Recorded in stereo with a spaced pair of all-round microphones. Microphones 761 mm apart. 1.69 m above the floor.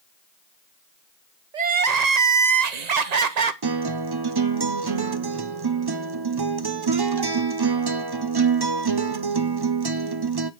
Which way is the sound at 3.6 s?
35° right (ahead or behind).